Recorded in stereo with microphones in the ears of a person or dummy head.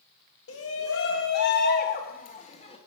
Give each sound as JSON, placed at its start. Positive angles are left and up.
{"t": 0.5, "sound": "a shout", "side_deg": 70, "distance_m": 1.8}